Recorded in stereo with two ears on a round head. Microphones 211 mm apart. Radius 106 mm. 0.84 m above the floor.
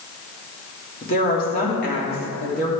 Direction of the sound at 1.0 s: 40° left (ahead or behind).